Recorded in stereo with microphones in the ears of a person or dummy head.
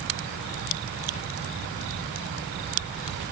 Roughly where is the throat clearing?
I don't hear throat clearing.